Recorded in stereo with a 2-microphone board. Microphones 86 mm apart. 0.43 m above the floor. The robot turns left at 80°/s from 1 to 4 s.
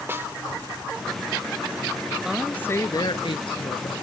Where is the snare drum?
25° right (ahead or behind).